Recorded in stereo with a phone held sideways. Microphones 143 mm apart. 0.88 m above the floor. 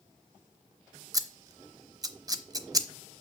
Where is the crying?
No crying in this recording.